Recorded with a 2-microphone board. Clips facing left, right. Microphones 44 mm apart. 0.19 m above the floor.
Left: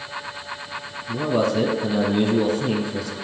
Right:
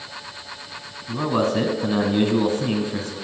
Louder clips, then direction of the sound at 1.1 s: Even; 40° right (ahead or behind).